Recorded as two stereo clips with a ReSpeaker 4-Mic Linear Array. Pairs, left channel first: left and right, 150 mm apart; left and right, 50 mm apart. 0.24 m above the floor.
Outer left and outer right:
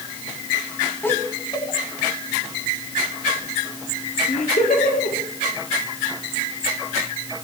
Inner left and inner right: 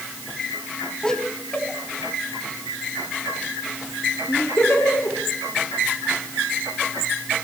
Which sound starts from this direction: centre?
Laughter, at 1.0 s.